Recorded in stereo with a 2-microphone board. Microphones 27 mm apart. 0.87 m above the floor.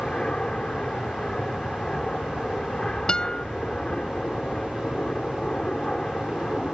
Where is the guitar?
35° left (ahead or behind).